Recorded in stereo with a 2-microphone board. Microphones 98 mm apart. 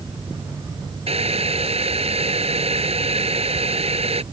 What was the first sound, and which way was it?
Boiling, 80° right.